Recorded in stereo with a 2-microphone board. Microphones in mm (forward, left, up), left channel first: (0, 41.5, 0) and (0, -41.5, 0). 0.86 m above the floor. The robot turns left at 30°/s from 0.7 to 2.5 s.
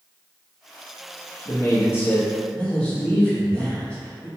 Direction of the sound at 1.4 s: 50° left.